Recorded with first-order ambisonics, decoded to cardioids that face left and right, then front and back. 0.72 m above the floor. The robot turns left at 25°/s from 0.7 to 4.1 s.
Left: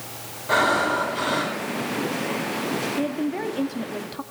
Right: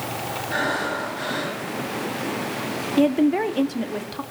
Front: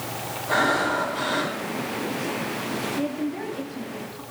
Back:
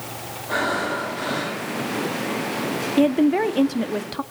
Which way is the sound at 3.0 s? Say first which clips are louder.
Right 7 dB, back 10 dB; 145° right.